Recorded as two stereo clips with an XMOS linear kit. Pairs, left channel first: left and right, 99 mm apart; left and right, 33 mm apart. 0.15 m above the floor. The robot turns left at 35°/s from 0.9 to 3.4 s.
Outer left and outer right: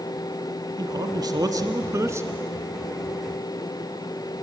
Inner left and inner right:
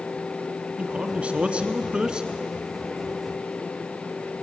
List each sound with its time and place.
0.8 s a man speaking: 90° right, 1.3 m; by 2.3 s 140° right, 1.3 m